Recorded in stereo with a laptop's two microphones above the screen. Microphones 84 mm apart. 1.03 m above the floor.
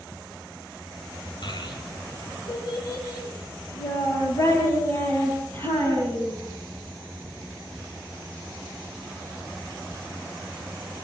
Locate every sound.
1.4 s a child speaking: 60° left (ahead or behind), 3 m; by 6.4 s 30° left (ahead or behind), 5.5 m